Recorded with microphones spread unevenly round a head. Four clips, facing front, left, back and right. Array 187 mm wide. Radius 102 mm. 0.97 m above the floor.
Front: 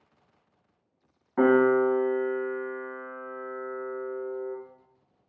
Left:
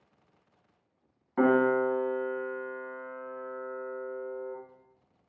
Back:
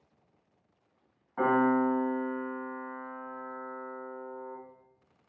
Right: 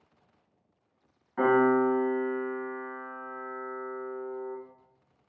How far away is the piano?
About 1.0 m.